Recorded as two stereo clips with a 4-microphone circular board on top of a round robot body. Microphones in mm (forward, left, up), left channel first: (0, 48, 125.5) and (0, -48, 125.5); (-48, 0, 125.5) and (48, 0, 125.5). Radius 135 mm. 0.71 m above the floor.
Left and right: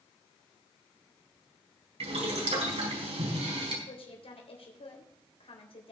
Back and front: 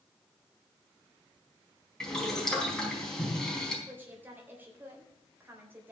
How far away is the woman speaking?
About 3.5 m.